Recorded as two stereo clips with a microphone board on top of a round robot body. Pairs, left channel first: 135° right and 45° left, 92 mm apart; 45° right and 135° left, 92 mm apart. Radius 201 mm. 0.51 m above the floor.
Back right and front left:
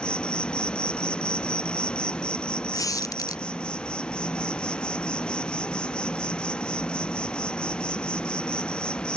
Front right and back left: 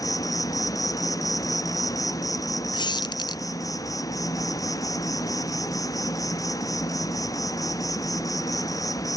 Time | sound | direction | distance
0.0 | an insect | 60° right | ?
2.7 | a squeak | 80° right | ?